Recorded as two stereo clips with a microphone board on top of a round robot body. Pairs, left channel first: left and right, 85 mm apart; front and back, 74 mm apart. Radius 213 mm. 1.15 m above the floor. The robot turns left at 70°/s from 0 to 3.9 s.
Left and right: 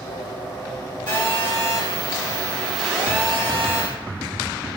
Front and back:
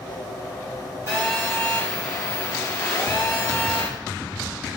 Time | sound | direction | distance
1.1 | a phone buzzing | 125° left | 2.5 m